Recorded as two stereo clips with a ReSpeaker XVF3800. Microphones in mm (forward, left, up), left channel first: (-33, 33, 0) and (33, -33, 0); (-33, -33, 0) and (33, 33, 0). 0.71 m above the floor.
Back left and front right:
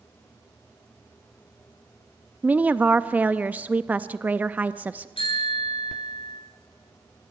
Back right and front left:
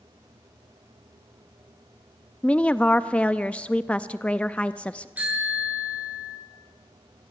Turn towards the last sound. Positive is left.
turn(degrees=120)